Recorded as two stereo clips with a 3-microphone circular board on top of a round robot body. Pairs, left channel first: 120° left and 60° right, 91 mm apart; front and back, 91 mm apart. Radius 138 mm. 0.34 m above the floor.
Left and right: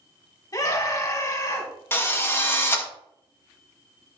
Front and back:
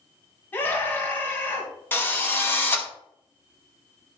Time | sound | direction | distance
0.5 | a scream | 70° left | 3 m
1.9 | a drill | 60° left | 2.5 m